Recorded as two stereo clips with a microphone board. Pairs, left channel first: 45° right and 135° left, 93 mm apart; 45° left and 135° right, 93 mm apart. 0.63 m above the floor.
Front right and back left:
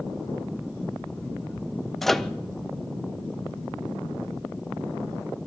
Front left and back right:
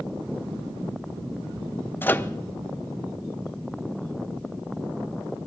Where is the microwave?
35° left, 0.5 m.